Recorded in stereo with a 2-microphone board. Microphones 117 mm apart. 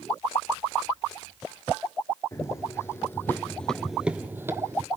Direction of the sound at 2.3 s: 25° left (ahead or behind).